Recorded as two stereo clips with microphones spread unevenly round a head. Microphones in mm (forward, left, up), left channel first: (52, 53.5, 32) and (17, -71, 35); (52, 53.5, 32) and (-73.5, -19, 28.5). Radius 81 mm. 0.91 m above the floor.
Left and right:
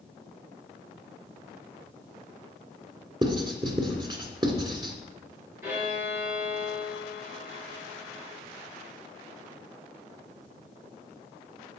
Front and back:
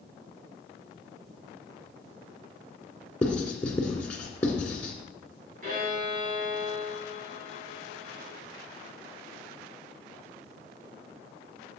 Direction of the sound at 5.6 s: Straight behind.